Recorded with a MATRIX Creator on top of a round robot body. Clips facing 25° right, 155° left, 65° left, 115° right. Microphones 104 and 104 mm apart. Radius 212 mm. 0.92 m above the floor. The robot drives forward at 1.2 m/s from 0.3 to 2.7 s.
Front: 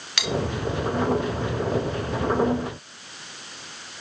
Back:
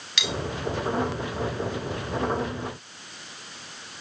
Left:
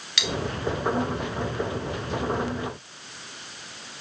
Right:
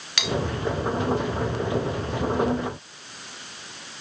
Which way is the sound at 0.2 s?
70° right.